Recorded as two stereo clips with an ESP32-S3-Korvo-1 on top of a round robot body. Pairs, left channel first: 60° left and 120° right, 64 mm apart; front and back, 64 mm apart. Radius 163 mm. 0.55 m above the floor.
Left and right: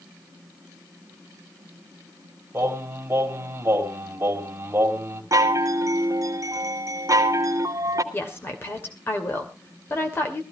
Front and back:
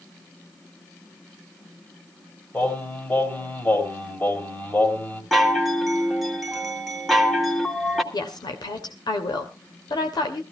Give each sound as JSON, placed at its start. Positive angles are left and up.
{"t": 2.5, "sound": "singing", "azimuth_deg": -60, "distance_m": 3.0}
{"t": 5.3, "sound": "a chime", "azimuth_deg": -90, "distance_m": 2.5}
{"t": 8.1, "sound": "a woman speaking", "azimuth_deg": 5, "distance_m": 2.5}